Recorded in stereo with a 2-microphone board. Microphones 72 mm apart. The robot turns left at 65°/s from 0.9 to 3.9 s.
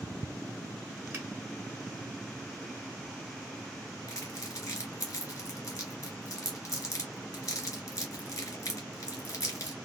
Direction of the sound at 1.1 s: 30° right (ahead or behind).